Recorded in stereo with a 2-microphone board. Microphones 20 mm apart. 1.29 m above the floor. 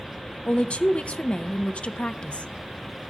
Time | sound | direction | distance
0.5 | a woman speaking | 75° left (ahead or behind) | 0.5 m